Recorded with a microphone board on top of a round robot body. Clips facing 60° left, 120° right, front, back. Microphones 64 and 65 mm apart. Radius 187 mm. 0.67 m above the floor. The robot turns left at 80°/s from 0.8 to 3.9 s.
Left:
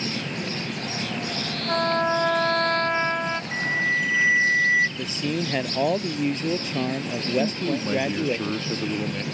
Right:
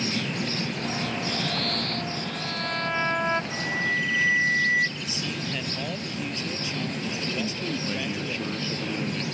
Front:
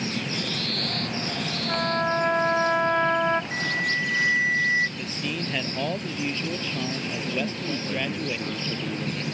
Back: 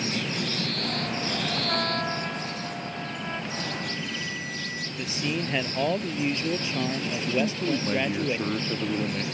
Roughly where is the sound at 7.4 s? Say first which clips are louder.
Left 5 dB, back 3 dB; behind left.